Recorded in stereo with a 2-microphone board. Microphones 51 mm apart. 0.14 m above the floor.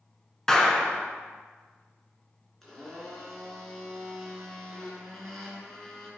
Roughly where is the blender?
Centre.